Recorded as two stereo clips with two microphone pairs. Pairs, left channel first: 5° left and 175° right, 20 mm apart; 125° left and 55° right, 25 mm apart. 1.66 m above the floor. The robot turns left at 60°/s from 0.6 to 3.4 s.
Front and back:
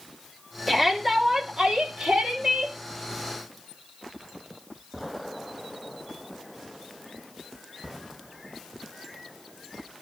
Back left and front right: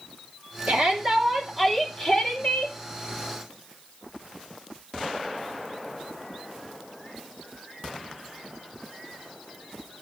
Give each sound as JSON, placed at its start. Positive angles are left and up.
{"t": 0.7, "sound": "a shout", "azimuth_deg": -80, "distance_m": 4.5}